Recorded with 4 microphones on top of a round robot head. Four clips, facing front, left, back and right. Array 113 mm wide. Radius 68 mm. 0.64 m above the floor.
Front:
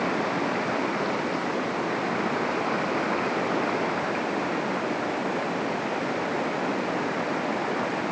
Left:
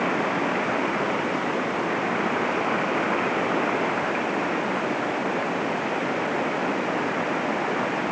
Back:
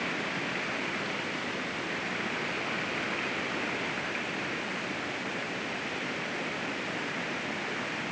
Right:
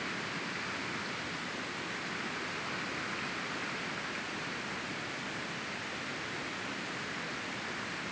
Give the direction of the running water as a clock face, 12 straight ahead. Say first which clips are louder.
Left 16 dB, front 9 dB; 10 o'clock.